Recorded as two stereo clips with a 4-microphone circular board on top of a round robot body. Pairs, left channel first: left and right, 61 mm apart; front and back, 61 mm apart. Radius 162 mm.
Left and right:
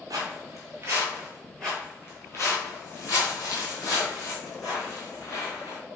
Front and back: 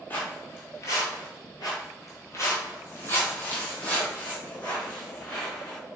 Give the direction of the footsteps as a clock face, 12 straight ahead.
2 o'clock.